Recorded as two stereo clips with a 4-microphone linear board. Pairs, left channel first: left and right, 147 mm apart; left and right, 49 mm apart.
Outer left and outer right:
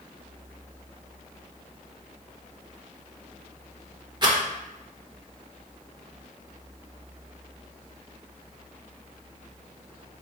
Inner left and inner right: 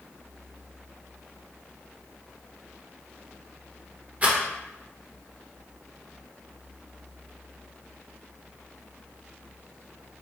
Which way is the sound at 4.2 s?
30° right (ahead or behind).